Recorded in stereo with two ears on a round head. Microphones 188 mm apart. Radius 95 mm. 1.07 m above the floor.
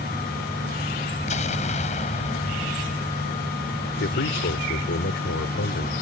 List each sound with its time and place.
1.3 s an explosion: 35° left (ahead or behind)
4.0 s a man speaking: 55° left (ahead or behind)